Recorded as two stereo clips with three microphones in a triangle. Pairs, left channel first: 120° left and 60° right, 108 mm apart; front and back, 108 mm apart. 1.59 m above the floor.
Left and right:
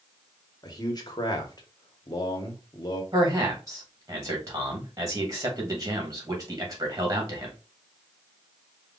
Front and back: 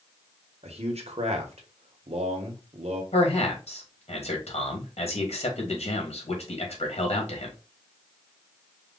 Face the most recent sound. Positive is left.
turn(degrees=0)